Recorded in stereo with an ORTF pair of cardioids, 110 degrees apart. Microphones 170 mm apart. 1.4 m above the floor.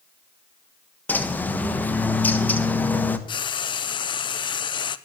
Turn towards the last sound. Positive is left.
turn(degrees=30)